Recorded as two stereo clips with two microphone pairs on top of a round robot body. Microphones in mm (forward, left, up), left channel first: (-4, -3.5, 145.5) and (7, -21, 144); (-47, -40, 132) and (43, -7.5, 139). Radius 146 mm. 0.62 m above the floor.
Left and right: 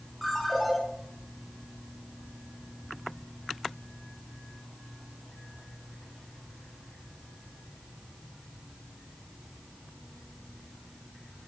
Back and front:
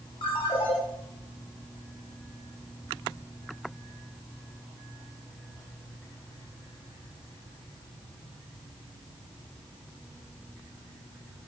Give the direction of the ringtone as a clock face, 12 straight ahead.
5 o'clock.